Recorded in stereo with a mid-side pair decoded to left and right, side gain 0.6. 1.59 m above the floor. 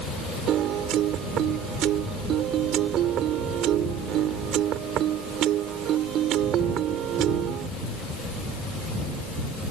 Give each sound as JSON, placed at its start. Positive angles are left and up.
{"t": 0.5, "sound": "a piano", "azimuth_deg": -60}